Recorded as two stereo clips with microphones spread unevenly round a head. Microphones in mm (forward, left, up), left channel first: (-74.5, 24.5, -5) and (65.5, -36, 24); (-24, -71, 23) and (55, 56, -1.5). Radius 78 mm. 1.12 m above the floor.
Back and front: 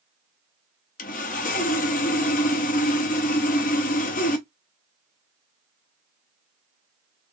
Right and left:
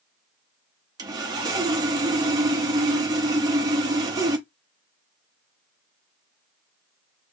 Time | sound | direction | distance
1.0 | sawing | 125° left | 0.6 m